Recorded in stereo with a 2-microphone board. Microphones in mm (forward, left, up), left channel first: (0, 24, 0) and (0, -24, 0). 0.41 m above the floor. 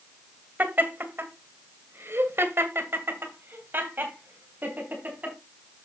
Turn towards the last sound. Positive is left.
turn(degrees=-40)  # may be behind; listen again after turning